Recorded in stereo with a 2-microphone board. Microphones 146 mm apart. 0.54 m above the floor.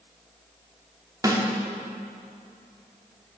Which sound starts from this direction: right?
A snare drum, at 1.2 s.